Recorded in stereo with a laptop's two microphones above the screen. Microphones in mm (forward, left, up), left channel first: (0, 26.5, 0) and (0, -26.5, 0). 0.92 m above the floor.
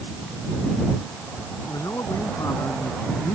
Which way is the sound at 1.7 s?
85° left.